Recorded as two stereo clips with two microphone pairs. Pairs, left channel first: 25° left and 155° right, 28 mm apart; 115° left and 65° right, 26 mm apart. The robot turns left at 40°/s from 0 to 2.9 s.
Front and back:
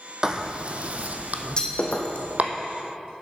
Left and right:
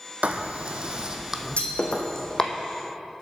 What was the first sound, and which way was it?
Writing, 90° right.